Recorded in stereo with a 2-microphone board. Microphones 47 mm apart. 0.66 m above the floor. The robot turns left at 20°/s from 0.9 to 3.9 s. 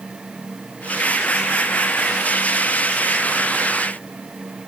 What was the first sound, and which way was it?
Only background noise.